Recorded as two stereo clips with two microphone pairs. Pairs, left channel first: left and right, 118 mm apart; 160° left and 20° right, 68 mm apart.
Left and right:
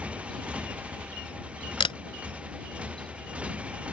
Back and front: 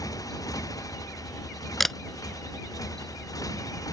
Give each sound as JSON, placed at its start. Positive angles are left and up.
{"t": 0.0, "sound": "a motorcycle", "azimuth_deg": -170}
{"t": 1.8, "sound": "a camera shutter", "azimuth_deg": 70}